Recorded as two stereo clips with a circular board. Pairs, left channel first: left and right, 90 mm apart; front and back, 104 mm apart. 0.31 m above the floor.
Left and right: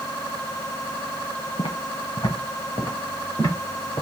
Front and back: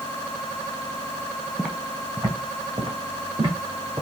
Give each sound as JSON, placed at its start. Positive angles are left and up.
{"t": 1.6, "sound": "footsteps", "azimuth_deg": 100, "distance_m": 0.9}